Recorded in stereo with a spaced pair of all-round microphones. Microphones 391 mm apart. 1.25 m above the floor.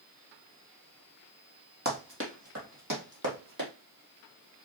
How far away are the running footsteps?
About 2 m.